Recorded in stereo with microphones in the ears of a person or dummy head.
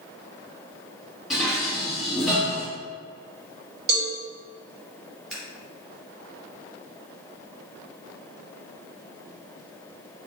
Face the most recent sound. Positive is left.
turn(degrees=0)  # may be behind; listen again after turning